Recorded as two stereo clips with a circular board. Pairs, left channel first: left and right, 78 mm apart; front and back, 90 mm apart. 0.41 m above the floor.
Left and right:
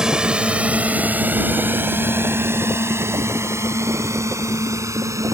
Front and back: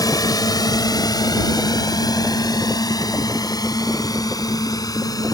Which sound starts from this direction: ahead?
A drone, at 0.0 s.